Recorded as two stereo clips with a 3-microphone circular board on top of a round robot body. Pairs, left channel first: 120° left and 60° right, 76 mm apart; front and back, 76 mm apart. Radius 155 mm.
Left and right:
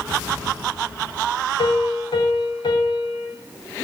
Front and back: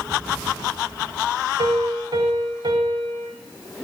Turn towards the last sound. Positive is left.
turn(degrees=150)